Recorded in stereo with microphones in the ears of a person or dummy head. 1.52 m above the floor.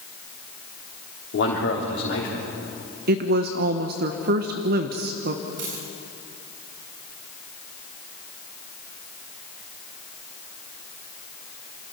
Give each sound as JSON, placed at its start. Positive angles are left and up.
{"t": 1.3, "sound": "a man speaking", "side_deg": 60, "distance_m": 3.5}
{"t": 3.1, "sound": "a woman speaking", "side_deg": -45, "distance_m": 0.8}
{"t": 5.6, "sound": "a dropped coin", "side_deg": -70, "distance_m": 7.0}